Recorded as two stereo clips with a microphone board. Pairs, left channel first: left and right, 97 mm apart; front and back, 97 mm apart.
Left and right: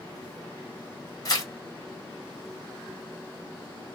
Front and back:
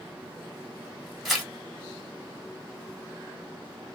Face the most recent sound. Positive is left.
turn(degrees=95)